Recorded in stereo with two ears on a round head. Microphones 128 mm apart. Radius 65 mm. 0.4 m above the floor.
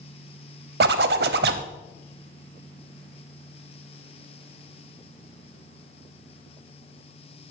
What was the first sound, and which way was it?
A zipper, 80° right.